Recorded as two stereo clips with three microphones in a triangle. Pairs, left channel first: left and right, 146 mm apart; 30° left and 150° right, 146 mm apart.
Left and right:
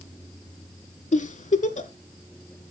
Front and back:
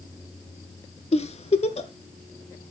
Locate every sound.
1.1 s a giggle: 65° left, 0.5 m